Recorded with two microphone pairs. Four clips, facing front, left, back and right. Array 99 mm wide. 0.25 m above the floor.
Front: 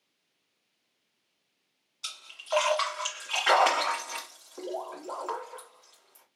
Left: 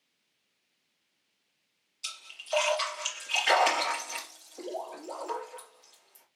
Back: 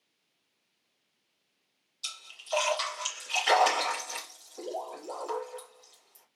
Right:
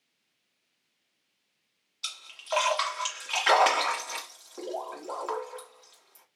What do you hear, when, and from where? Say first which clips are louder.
2.0 s a splash: right 9 dB, front 7 dB; 50° right, 1.7 m